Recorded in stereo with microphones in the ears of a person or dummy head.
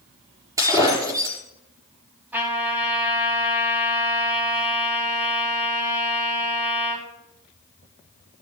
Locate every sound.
0.6 s breaking glass: 20° right (ahead or behind), 4 m
2.3 s a trumpet: 10° right (ahead or behind), 4.5 m